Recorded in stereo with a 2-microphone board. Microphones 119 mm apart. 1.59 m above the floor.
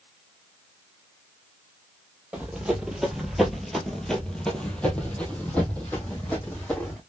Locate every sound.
2.3 s running footsteps: 10° right (ahead or behind), 1.8 m; by 7.0 s 15° left (ahead or behind), 3.5 m